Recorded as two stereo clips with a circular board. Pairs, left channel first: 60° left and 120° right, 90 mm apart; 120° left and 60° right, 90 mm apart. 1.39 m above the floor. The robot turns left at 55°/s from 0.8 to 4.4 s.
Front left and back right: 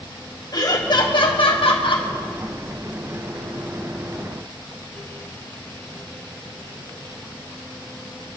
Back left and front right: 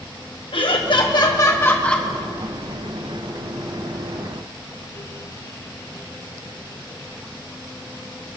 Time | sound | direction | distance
0.5 | laughter | 100° left | 1.2 m